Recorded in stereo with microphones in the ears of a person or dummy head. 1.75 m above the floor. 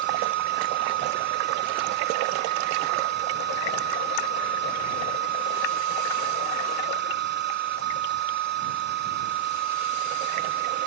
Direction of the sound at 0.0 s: 55° right (ahead or behind).